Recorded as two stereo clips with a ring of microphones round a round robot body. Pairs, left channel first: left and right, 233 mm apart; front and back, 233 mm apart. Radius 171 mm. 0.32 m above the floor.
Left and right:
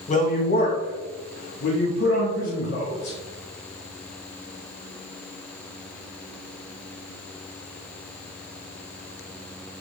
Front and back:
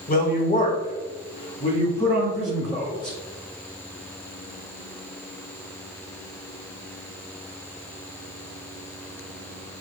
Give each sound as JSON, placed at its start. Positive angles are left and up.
{"t": 0.1, "sound": "a woman speaking", "azimuth_deg": 40, "distance_m": 1.5}